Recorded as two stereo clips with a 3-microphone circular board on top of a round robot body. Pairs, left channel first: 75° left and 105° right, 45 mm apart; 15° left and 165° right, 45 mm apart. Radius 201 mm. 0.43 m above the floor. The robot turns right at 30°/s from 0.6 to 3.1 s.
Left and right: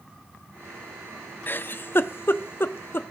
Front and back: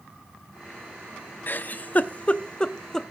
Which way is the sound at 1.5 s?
45° left.